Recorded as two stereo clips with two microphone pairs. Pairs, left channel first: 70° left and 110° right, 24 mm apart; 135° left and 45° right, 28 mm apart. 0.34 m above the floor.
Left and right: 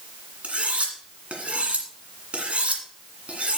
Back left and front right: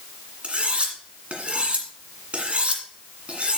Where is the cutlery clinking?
85° right, 1.9 m.